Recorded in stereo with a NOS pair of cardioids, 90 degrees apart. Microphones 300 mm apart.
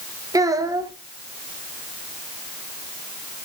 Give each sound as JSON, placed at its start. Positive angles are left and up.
{"t": 0.3, "sound": "a child speaking", "azimuth_deg": -10, "distance_m": 1.9}